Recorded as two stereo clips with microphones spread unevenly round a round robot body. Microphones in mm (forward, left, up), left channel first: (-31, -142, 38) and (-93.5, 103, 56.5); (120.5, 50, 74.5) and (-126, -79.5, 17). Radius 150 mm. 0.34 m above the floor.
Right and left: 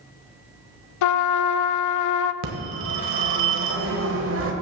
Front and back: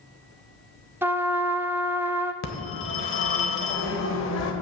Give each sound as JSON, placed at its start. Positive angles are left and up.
{"t": 1.0, "sound": "a trumpet", "azimuth_deg": -70, "distance_m": 0.5}
{"t": 2.4, "sound": "a phone ringing", "azimuth_deg": 75, "distance_m": 1.3}